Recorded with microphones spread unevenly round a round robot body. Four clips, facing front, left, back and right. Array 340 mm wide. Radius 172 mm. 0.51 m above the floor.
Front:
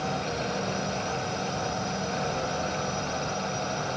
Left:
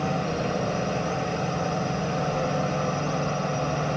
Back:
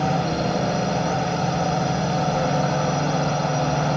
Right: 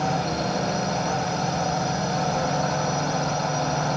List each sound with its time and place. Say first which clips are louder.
0.0 s a drone: right 2 dB, back 8 dB; straight behind